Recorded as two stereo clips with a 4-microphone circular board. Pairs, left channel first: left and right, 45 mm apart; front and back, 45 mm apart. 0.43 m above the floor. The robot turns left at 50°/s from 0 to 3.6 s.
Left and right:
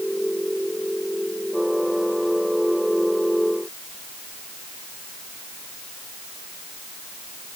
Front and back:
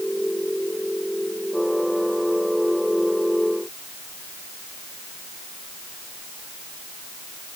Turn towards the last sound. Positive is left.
No sound to turn to.